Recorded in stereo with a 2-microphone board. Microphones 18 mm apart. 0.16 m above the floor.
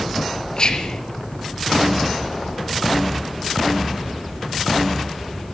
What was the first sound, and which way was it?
Whispering, 40° left (ahead or behind).